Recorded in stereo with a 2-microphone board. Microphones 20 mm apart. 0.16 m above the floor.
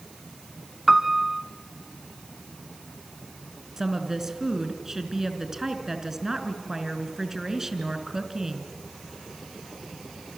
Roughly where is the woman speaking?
Right.